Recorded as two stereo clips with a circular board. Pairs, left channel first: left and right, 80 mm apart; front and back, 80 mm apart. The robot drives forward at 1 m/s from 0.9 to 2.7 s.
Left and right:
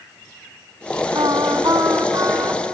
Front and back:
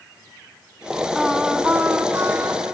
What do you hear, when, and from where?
1.1 s singing: 90° right, 1.5 m; by 2.6 s 140° right, 2 m